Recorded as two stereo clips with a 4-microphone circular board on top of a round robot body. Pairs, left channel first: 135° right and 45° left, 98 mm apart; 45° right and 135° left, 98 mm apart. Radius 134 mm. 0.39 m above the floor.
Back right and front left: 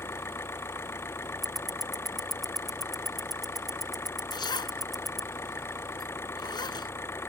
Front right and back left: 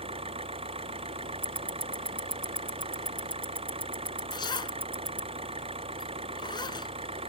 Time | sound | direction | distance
0.0 | an engine running | 160° left | ?
1.4 | ticking | 135° left | ?
4.3 | a zipper | 90° right | ?